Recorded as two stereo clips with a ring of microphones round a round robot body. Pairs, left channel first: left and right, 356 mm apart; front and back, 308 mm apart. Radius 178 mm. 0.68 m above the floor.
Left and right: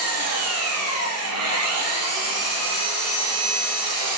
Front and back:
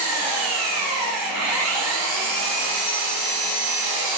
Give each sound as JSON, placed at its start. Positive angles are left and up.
{"t": 0.0, "sound": "an engine running", "azimuth_deg": -140, "distance_m": 5.0}